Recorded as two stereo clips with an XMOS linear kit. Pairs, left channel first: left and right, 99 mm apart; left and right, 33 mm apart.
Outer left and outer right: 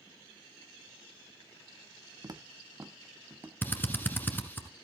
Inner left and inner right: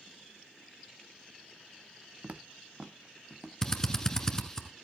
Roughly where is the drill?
Centre.